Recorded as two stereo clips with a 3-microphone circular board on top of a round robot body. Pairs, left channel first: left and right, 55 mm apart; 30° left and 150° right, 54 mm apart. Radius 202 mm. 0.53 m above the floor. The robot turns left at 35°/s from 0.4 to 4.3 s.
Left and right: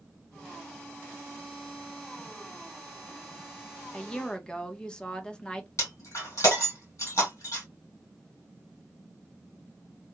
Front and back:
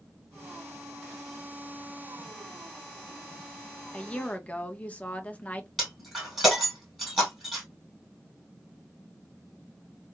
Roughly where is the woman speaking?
Ahead left.